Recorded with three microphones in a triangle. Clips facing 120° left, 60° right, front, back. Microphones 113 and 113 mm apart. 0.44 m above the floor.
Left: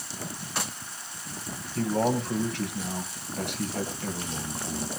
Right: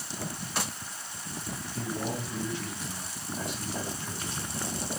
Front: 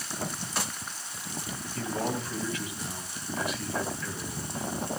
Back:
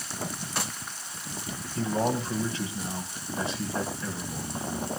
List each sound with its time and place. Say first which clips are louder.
1.8 s a man speaking: left 9 dB, back 5 dB; 120° left, 3 m